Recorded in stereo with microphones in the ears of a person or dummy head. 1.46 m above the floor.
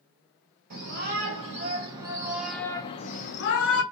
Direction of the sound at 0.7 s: 45° right (ahead or behind).